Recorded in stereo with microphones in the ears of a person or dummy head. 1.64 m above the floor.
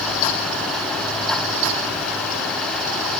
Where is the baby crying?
No baby crying in this recording.